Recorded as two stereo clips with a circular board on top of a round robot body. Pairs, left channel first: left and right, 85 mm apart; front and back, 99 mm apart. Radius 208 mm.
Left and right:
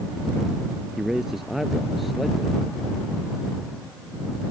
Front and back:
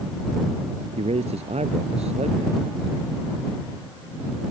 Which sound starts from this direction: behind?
A man speaking, at 1.0 s.